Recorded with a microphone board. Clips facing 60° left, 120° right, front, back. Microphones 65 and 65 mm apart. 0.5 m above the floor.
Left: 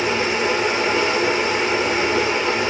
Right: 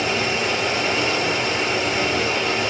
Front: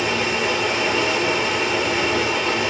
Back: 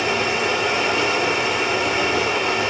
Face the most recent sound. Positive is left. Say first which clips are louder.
# left 2 dB, back 1 dB
turn(degrees=105)